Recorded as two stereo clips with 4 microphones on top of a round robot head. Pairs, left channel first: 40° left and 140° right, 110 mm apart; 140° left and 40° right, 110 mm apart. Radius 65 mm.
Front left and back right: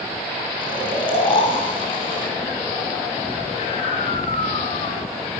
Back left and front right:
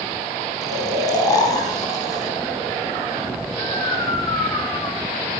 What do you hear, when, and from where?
0.6 s snoring: 85° left, 5 m